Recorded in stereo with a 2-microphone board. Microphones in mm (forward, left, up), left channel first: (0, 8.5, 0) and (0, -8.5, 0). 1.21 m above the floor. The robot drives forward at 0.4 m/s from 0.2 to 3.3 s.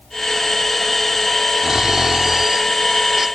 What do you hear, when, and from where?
1.6 s snoring: 30° right (ahead or behind); by 3.3 s 20° right (ahead or behind)